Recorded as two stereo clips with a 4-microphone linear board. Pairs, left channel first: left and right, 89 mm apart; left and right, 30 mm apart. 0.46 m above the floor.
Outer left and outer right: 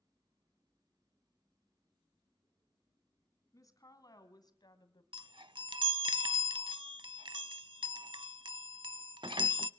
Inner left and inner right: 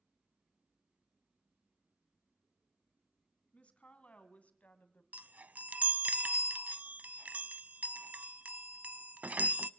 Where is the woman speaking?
40° left (ahead or behind), 3 m; by 5.0 s 55° left (ahead or behind), 2.5 m.